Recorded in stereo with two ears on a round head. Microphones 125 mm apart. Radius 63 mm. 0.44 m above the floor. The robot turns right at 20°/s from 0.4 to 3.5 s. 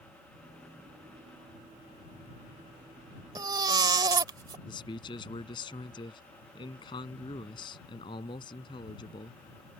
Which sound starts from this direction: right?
A baby crying, at 3.4 s.